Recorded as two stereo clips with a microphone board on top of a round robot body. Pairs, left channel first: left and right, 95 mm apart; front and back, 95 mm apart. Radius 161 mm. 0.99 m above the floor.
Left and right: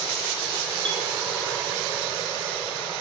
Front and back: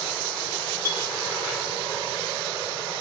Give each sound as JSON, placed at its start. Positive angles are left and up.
{"t": 0.8, "sound": "a clink", "azimuth_deg": -55, "distance_m": 3.0}